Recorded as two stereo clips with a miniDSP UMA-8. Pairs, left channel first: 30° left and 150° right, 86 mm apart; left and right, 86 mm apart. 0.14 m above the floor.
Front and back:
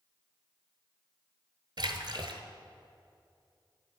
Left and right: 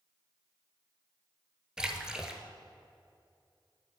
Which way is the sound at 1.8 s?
175° right.